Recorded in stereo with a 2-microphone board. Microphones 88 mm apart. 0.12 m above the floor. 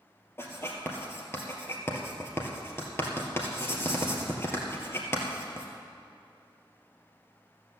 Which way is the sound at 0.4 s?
30° left (ahead or behind).